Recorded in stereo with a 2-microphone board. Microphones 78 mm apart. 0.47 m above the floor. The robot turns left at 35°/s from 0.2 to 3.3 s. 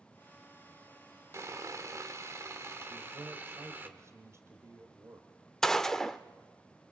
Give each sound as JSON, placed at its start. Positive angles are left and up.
{"t": 1.3, "sound": "sawing", "azimuth_deg": -70, "distance_m": 1.6}
{"t": 2.9, "sound": "a man speaking", "side_deg": -45, "distance_m": 2.5}
{"t": 5.6, "sound": "a gunshot", "side_deg": 5, "distance_m": 0.7}